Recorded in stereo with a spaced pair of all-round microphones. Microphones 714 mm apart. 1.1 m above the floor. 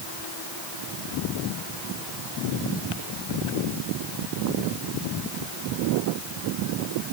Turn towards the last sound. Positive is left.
No sound to turn to.